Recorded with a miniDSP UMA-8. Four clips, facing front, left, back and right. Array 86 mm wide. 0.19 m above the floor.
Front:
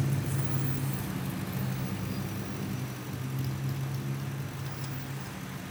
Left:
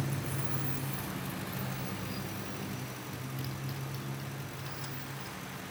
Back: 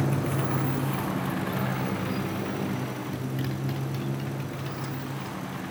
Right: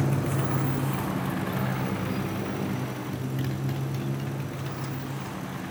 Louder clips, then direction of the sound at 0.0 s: Right 10 dB, back 6 dB; 135° right.